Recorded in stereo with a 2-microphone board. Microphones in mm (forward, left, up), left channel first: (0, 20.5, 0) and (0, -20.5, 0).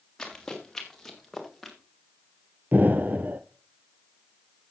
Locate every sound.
0.2 s running footsteps: 15° left (ahead or behind), 3.5 m; by 1.8 s centre (ahead or behind), 3 m
2.7 s an explosion: 50° right (ahead or behind), 0.7 m